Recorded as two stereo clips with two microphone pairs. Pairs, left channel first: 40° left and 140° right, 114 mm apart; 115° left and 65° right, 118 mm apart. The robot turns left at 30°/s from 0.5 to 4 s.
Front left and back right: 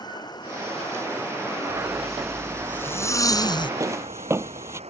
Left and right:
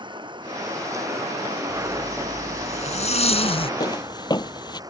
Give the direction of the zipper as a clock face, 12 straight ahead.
7 o'clock.